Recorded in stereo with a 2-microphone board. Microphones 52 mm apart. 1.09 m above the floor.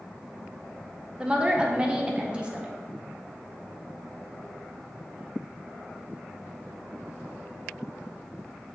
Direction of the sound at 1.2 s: 15° right (ahead or behind).